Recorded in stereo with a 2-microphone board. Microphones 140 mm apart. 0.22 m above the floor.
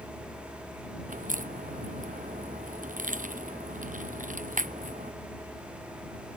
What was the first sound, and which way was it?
A crack, 65° right (ahead or behind).